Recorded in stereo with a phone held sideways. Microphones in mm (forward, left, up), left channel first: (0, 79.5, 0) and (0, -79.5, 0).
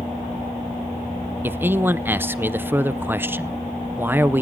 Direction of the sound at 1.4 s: 15° right (ahead or behind).